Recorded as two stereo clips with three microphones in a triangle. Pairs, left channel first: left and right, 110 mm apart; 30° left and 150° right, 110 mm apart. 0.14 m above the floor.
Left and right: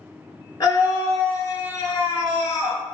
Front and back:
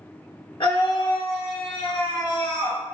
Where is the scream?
50° left, 1.7 m.